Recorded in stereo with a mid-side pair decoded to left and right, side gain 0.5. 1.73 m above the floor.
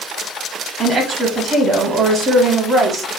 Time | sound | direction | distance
0.8 | a woman speaking | 45° right | 1.2 m